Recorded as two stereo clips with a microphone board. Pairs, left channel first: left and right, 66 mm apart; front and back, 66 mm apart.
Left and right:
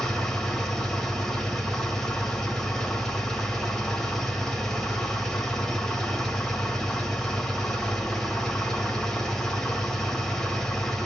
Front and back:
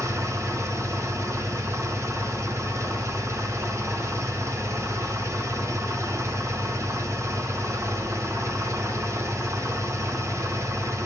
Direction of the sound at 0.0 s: 170° left.